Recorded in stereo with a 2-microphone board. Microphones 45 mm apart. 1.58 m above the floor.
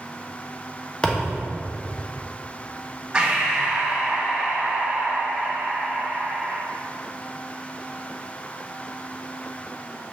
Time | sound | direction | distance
1.0 | a thud | 20° left (ahead or behind) | 1.2 m
3.1 | breathing | 15° right (ahead or behind) | 2.5 m